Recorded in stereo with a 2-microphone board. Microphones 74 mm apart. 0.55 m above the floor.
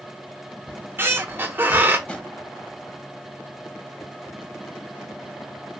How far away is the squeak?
About 0.6 m.